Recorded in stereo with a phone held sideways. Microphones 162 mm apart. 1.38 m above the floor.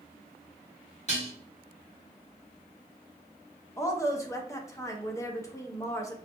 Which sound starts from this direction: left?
Dishes clattering, at 1.1 s.